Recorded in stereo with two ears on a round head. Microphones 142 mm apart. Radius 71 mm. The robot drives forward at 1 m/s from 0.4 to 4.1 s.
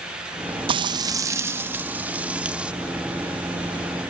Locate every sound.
0.7 s frying: 30° right (ahead or behind); by 2.7 s 10° right (ahead or behind)